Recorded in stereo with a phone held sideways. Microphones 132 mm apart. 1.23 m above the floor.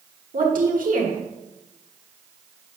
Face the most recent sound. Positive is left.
turn(degrees=-85)